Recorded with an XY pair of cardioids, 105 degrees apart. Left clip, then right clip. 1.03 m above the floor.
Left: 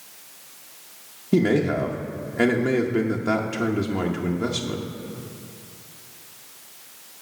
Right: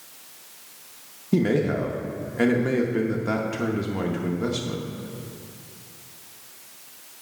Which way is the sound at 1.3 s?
10° left.